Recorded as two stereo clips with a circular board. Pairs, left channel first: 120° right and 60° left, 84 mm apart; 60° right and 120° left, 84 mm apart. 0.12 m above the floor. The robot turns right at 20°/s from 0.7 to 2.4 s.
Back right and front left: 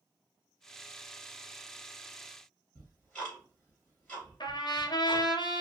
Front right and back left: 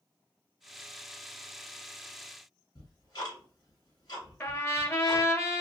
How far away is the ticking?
About 2.5 m.